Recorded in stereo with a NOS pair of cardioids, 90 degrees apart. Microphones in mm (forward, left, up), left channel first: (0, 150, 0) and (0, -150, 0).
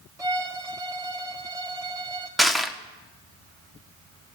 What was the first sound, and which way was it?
A violin, 10° right.